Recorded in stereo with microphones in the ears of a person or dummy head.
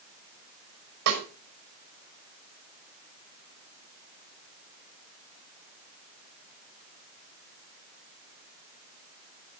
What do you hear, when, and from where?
1.1 s a snare drum: 65° right (ahead or behind), 5 m